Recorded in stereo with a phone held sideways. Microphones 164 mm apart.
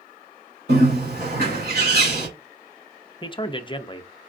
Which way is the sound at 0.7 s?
80° right.